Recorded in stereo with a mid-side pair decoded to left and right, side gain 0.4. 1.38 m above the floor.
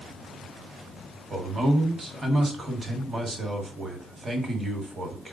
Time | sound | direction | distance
1.3 | a man speaking | 35° right | 1.2 m